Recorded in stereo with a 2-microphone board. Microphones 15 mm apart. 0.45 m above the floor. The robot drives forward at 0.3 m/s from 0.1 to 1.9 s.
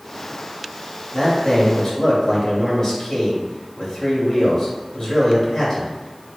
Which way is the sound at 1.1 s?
30° left (ahead or behind).